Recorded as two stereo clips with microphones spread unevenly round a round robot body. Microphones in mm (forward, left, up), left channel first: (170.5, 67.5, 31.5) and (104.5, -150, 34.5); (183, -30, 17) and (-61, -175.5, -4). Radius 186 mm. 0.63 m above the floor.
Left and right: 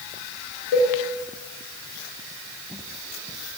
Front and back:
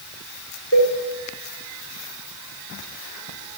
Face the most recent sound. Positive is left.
turn(degrees=90)